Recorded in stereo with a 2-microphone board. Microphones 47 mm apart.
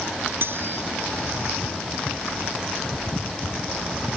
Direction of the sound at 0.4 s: 50° right (ahead or behind).